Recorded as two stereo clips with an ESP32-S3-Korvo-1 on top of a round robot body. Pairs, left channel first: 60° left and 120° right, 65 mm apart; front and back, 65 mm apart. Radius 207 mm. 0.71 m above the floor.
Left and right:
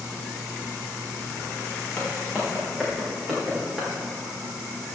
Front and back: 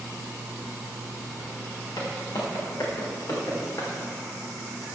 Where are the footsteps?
20° right, 4 m; by 3.9 s 35° right, 4.5 m.